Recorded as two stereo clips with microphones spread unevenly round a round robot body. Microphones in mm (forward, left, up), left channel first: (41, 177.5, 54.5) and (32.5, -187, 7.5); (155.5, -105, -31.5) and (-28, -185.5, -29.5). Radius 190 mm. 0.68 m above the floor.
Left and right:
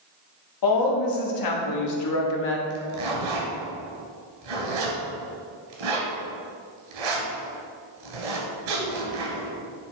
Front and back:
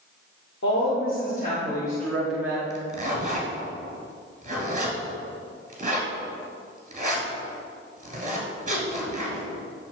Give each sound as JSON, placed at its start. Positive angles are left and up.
{"t": 0.6, "sound": "a woman speaking", "azimuth_deg": 65, "distance_m": 1.8}
{"t": 2.7, "sound": "a zipper", "azimuth_deg": -100, "distance_m": 2.5}